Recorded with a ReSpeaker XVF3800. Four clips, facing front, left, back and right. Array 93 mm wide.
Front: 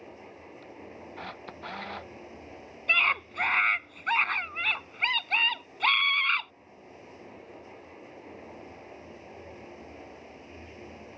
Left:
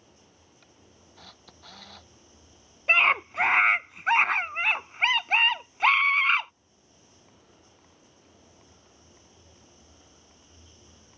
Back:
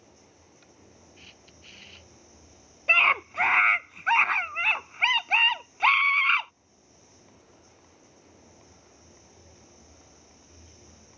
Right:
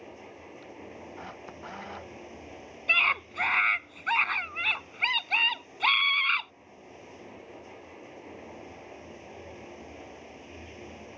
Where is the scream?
130° left.